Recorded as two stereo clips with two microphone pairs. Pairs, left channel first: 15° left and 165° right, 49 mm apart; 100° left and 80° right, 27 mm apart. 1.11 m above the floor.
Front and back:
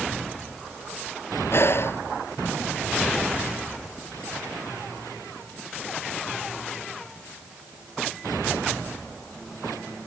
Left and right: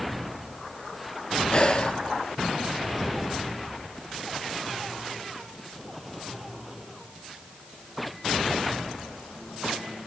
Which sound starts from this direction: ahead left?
Breathing, at 1.5 s.